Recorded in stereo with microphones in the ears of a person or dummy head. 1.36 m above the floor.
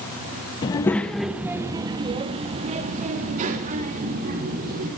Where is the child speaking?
20° left (ahead or behind), 0.7 m; by 4.9 s 50° right (ahead or behind), 2.5 m.